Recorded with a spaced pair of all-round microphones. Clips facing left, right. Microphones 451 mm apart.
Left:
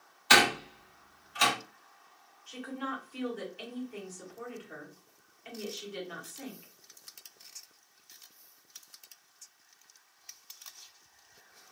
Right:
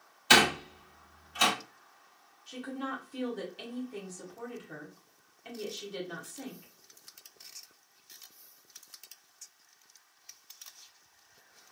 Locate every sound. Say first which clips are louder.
0.3 s a door slam: right 1 dB; 45° right (ahead or behind), 1.2 m
2.5 s a woman speaking: right 1 dB; 55° right (ahead or behind), 0.9 m